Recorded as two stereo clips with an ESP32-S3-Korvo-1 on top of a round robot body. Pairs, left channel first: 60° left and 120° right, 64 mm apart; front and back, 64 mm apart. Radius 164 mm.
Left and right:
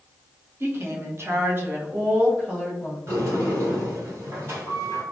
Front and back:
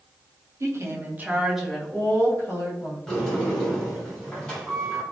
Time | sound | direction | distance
0.6 | a woman speaking | 160° right | 1.1 m
3.1 | a sliding door | 80° right | 1.5 m